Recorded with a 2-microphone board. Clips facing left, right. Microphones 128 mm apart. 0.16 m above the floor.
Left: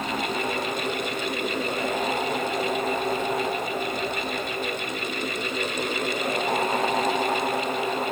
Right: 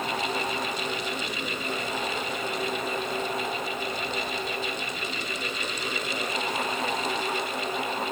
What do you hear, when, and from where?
Only background noise.